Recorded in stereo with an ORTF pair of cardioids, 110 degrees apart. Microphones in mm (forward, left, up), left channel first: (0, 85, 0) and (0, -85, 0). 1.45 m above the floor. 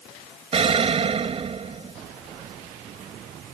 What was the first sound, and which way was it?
An explosion, 35° right.